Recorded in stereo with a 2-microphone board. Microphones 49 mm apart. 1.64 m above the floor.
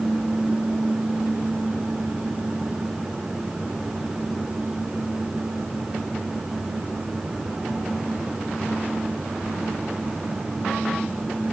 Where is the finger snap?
No finger snap in this recording.